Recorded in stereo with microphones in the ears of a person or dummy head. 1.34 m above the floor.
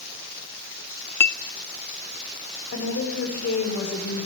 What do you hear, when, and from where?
1.2 s a clink: 15° left (ahead or behind), 0.6 m
2.7 s a woman speaking: 55° left (ahead or behind), 7 m